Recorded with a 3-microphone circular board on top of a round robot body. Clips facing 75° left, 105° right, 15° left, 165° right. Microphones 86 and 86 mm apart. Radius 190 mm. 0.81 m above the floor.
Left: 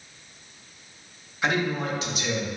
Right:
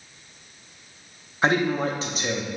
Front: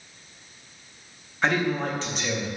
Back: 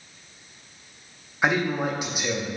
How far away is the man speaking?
About 0.8 m.